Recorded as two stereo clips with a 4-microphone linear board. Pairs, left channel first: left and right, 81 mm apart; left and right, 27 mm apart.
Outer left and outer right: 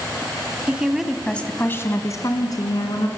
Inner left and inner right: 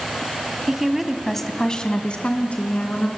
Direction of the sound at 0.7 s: 15° right (ahead or behind).